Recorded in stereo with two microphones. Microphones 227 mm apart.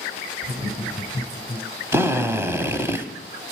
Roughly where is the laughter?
Centre.